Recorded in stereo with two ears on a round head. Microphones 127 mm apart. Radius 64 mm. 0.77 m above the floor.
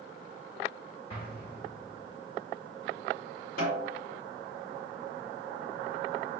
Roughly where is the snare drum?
Left.